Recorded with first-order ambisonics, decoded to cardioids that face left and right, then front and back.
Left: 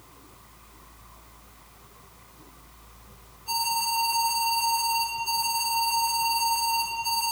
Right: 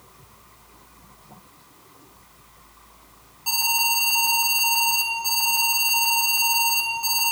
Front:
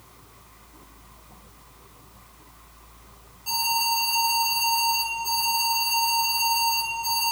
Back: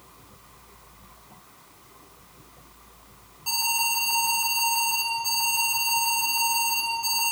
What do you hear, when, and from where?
3.5 s an alarm: 105° right, 5.5 m